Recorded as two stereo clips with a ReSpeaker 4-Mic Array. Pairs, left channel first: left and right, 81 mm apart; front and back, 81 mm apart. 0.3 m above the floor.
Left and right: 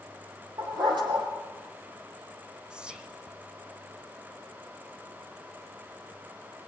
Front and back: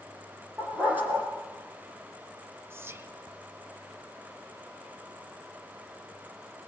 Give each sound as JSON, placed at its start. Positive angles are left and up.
{"t": 0.6, "sound": "a dog barking", "azimuth_deg": -110, "distance_m": 4.5}
{"t": 2.7, "sound": "whispering", "azimuth_deg": -160, "distance_m": 1.7}